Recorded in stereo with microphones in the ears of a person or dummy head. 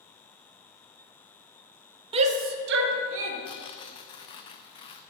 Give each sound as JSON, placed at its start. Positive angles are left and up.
{"t": 2.1, "sound": "a shout", "side_deg": -30, "distance_m": 0.5}
{"t": 3.5, "sound": "tearing paper", "side_deg": 30, "distance_m": 0.5}